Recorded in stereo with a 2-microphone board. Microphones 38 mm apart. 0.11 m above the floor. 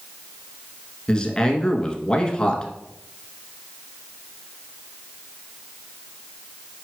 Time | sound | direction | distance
1.1 | a man speaking | 25° left (ahead or behind) | 1.2 m